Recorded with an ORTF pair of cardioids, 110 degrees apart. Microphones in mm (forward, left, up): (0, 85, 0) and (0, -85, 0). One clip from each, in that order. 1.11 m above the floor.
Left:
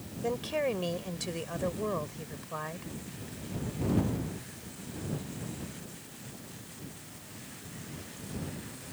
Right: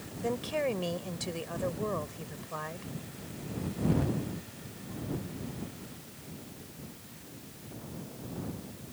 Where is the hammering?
I don't hear hammering.